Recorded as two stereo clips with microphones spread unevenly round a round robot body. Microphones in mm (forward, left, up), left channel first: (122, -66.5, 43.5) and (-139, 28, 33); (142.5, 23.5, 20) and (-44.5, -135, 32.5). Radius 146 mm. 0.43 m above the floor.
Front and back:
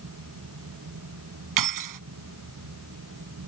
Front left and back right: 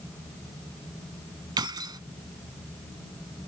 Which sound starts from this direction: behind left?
Keys jangling, at 1.6 s.